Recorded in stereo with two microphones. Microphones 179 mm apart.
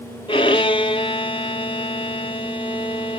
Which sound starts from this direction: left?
A violin, at 0.3 s.